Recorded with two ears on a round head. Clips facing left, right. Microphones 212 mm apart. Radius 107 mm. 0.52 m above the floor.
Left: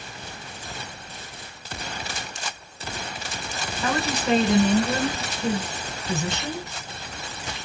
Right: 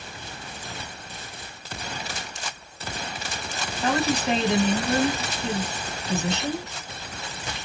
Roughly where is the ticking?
No ticking in this recording.